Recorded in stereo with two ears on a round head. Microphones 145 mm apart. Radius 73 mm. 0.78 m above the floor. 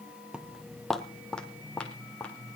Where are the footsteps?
5° right (ahead or behind), 0.9 m; by 2.6 s 10° left (ahead or behind), 3 m.